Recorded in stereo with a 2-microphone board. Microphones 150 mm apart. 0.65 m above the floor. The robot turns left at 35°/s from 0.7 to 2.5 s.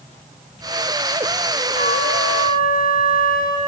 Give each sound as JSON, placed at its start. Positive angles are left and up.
{"t": 1.7, "sound": "a flute", "side_deg": 80, "distance_m": 3.5}